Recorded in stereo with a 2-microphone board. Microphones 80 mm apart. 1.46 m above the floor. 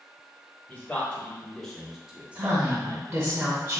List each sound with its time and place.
0.7 s a man speaking: 20° left (ahead or behind), 1.3 m; by 3.3 s 65° right (ahead or behind), 0.6 m
2.4 s a woman speaking: 30° right (ahead or behind), 0.6 m